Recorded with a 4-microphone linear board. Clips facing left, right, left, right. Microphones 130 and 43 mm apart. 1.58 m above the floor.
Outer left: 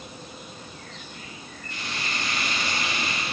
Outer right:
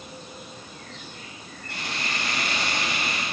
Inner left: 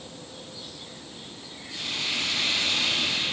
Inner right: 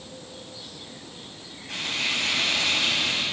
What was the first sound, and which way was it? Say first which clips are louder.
Frying: outer right 1 dB, inner right 3 dB; 70° right (ahead or behind).